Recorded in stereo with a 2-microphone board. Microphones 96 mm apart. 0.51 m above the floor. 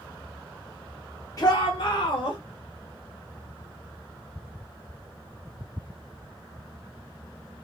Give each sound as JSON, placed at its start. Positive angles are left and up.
{"t": 1.4, "sound": "a shout", "side_deg": 40, "distance_m": 0.9}